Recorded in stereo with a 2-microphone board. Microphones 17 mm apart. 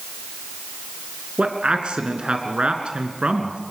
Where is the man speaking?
75° right (ahead or behind), 3.5 m.